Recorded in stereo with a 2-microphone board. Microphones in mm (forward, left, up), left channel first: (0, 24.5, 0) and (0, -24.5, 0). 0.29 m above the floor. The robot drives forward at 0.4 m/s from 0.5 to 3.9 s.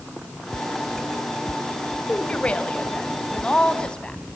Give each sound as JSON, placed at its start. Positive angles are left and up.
{"t": 2.1, "sound": "a woman speaking", "side_deg": 25, "distance_m": 1.2}